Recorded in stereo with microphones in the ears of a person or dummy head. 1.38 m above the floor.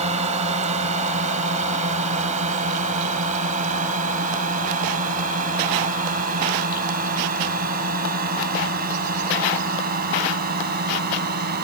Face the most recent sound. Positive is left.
turn(degrees=-45)  # may be behind; listen again after turning